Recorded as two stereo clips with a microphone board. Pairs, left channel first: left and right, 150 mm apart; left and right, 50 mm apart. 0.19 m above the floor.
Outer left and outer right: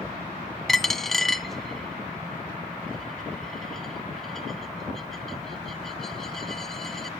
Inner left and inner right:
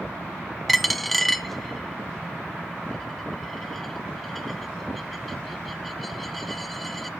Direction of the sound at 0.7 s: Centre (ahead or behind).